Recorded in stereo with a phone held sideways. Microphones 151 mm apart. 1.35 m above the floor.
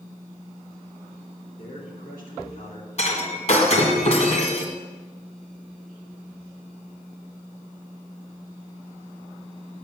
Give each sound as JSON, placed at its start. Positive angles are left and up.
{"t": 1.6, "sound": "a man speaking", "side_deg": 80, "distance_m": 3.0}
{"t": 3.0, "sound": "breaking glass", "side_deg": 50, "distance_m": 1.9}